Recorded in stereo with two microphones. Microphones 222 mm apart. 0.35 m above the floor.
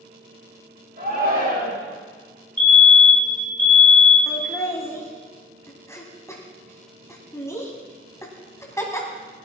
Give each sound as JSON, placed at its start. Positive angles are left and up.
{"t": 1.0, "sound": "a shout", "side_deg": -50, "distance_m": 7.5}
{"t": 2.6, "sound": "a fire alarm", "side_deg": 35, "distance_m": 3.5}
{"t": 4.3, "sound": "laughter", "side_deg": 15, "distance_m": 2.5}